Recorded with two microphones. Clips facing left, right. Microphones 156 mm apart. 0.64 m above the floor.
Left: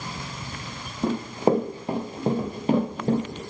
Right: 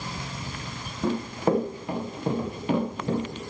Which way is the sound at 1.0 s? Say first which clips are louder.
Left 3 dB; 25° left (ahead or behind).